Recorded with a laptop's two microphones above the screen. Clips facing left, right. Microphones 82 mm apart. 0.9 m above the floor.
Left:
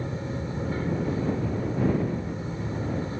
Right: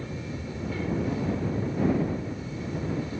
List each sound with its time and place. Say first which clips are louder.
0.0 s an aircraft: left 3 dB; 35° left (ahead or behind)